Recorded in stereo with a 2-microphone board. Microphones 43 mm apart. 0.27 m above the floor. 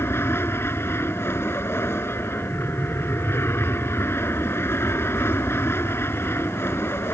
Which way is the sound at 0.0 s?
70° left (ahead or behind).